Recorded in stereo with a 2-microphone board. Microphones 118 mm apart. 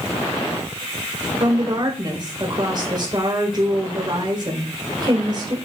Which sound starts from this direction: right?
A woman speaking, at 1.4 s.